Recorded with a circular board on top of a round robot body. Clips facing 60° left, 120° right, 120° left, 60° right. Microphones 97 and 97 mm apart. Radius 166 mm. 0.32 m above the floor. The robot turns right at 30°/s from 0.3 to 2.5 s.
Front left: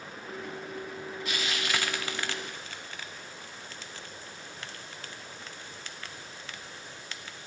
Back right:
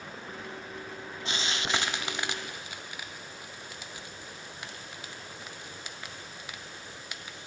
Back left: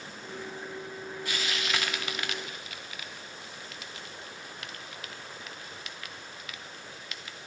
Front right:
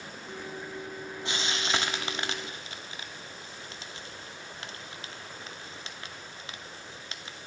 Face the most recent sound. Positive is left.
turn(degrees=-55)